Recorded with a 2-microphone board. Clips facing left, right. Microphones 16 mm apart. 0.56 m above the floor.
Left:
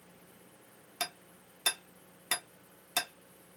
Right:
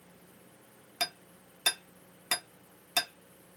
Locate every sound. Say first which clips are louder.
1.0 s hammering: right 4 dB; 5° right (ahead or behind), 1.0 m